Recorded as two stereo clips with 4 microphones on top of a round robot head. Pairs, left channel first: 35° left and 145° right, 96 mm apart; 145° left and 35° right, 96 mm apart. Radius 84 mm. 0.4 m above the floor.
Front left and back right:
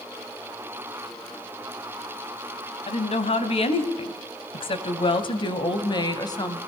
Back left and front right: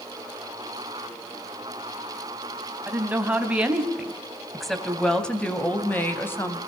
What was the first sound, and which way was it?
A woman speaking, 35° left.